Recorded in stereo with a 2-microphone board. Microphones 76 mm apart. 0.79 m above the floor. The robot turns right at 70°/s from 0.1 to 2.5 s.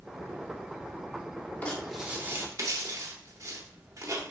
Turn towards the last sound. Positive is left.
turn(degrees=-40)  # may be behind; listen again after turning